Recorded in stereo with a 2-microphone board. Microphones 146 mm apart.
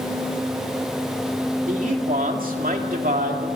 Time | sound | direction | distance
1.7 | a man speaking | 60° right (ahead or behind) | 2.5 m